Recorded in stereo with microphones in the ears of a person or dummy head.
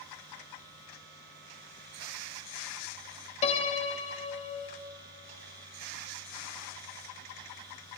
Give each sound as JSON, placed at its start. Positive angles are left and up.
{"t": 3.4, "sound": "a piano", "side_deg": 30, "distance_m": 0.8}